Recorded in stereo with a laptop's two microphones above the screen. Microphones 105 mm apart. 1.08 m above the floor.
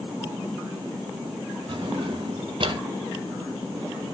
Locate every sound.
1.7 s a drawer: 50° right (ahead or behind), 0.5 m